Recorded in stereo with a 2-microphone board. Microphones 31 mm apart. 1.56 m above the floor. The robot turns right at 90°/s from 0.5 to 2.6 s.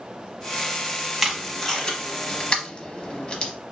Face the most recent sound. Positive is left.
turn(degrees=30)  # may be behind; listen again after turning